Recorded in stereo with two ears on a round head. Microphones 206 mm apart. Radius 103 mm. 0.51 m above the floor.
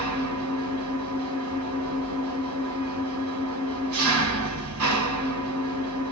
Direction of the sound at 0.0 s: 70° right (ahead or behind).